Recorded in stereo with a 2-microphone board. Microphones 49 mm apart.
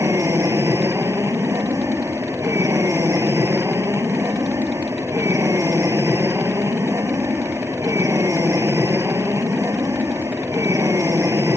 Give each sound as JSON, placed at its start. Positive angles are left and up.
{"t": 0.0, "sound": "an aircraft", "side_deg": -75}